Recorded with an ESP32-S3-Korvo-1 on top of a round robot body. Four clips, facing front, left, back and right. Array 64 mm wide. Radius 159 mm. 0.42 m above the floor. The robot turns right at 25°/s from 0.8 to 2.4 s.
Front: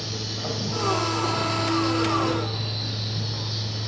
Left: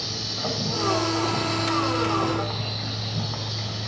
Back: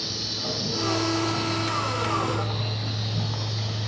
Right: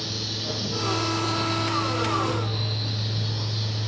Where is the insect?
80° left, 2.5 m; by 3.9 s 120° left, 2.5 m.